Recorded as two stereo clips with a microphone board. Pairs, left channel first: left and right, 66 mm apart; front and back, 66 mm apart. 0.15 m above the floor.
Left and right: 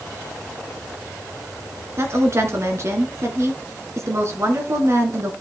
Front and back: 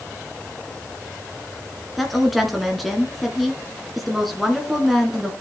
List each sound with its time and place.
2.0 s a woman speaking: 90° right, 1.8 m